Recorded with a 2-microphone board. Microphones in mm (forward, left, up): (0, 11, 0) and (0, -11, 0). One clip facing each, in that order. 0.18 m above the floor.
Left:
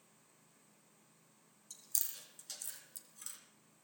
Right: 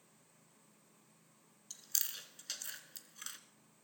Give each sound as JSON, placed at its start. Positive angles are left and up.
{"t": 1.7, "sound": "chewing", "side_deg": -40, "distance_m": 1.2}